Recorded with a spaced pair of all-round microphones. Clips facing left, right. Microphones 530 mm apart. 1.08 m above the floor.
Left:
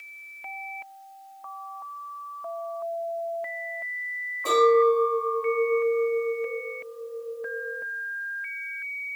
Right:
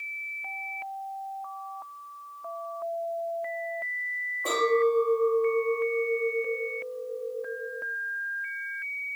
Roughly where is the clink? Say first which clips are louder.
Left 5 dB; left.